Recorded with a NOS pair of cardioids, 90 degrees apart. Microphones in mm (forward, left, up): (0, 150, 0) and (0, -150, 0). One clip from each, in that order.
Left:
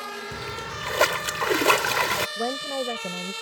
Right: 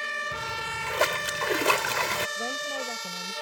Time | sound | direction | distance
0.3 | a splash | 25° left | ?
2.4 | a woman speaking | 55° left | ?